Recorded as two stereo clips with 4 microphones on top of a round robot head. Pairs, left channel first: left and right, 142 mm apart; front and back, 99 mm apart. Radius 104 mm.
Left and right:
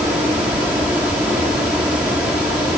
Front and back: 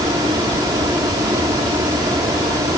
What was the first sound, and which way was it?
Only background noise.